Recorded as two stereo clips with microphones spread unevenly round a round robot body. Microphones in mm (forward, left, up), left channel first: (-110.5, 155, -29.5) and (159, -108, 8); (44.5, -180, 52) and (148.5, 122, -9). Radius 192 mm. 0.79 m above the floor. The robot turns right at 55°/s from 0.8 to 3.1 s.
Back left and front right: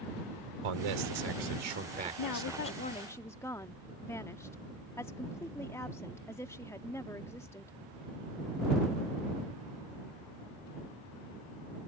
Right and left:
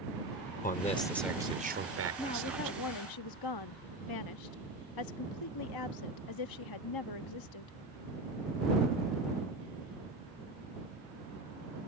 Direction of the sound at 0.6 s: 40° right.